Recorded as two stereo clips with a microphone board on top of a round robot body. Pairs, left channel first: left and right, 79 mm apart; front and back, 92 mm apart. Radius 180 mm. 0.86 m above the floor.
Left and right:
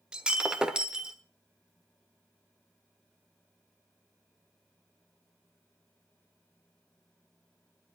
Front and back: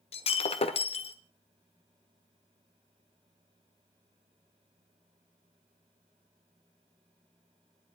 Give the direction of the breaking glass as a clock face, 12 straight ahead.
12 o'clock.